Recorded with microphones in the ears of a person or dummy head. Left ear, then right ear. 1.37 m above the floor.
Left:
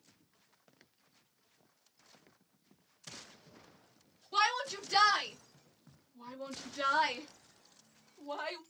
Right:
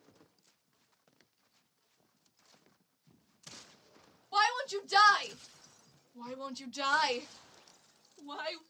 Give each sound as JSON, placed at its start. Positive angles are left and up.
{"t": 4.3, "sound": "a shout", "side_deg": -40, "distance_m": 1.7}